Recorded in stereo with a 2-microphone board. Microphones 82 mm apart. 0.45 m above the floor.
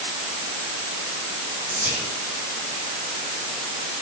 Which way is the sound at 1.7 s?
75° left (ahead or behind).